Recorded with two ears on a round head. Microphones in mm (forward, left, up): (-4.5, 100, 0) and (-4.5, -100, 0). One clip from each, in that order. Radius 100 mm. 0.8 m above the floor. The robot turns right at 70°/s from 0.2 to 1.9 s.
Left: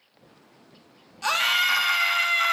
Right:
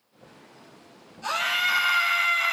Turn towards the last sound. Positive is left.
turn(degrees=165)